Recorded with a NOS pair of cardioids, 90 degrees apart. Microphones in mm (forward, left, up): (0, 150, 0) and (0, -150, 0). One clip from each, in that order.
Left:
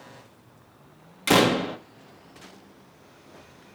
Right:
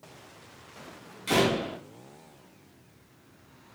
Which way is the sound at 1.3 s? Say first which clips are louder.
Left 5 dB; 65° left.